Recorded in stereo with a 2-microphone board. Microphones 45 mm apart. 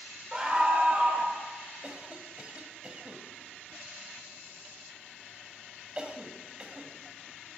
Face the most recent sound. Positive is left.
turn(degrees=-25)  # may be behind; listen again after turning